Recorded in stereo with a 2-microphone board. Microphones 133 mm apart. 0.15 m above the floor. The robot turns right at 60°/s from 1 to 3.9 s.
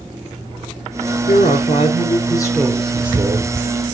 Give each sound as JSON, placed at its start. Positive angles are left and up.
{"t": 1.3, "sound": "a woman speaking", "azimuth_deg": 85, "distance_m": 1.9}